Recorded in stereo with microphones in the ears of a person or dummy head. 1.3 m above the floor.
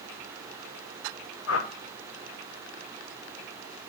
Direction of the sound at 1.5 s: 70° left (ahead or behind).